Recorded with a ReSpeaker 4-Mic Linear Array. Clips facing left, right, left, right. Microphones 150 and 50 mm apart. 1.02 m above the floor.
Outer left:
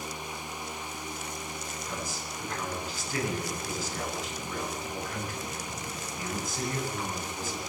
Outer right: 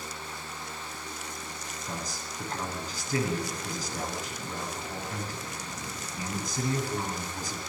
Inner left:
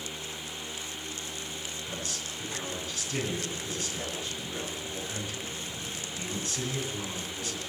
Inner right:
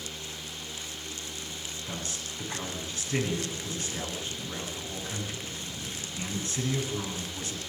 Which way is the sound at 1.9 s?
35° right (ahead or behind).